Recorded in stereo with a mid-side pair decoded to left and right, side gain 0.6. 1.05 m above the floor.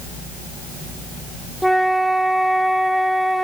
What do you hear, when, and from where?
1.6 s a flute: straight ahead, 0.9 m